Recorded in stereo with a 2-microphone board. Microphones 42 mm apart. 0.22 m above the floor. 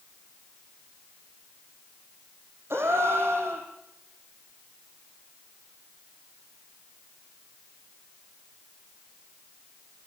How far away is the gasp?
About 4.5 m.